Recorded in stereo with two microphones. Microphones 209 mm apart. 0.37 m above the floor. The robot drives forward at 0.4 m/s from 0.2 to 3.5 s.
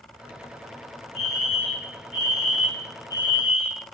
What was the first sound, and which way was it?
A fire alarm, 35° right (ahead or behind).